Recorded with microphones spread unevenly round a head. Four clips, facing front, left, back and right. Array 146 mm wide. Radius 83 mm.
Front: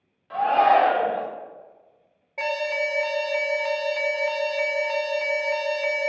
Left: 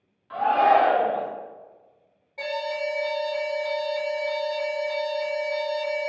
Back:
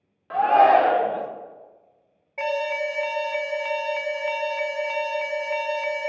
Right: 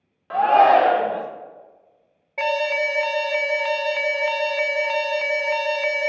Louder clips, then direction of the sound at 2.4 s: Right 6 dB, back 1 dB; 70° right.